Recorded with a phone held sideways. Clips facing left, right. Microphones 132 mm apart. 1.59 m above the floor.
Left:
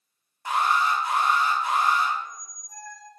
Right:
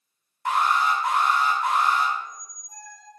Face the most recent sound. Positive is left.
turn(degrees=-70)  # may be behind; listen again after turning